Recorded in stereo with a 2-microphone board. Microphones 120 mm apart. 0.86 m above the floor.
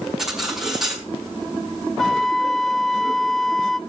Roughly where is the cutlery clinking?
Centre.